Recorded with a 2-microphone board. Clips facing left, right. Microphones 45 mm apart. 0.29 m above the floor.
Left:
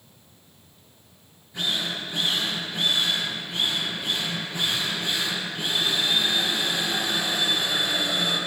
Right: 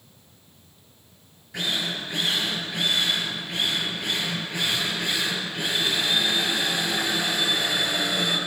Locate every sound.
1.5 s a drill: 70° right (ahead or behind), 6 m